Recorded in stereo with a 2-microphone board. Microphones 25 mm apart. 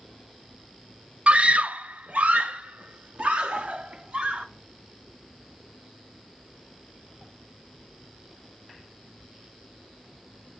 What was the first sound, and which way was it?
A scream, 55° right (ahead or behind).